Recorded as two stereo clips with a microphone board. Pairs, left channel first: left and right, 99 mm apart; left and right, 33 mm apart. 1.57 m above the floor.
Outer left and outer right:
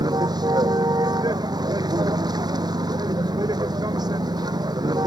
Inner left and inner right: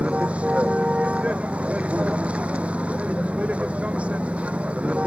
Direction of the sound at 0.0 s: 40° right (ahead or behind).